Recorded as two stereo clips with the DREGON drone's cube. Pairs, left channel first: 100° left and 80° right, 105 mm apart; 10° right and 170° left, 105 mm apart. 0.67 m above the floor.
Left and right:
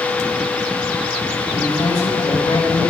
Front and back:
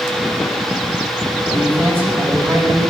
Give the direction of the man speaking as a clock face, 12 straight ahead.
9 o'clock.